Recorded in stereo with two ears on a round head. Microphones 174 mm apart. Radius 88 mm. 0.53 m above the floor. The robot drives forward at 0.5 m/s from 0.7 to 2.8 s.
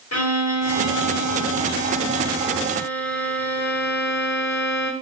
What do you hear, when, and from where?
0.1 s a violin: 85° left, 4 m; by 4.9 s 80° left, 4 m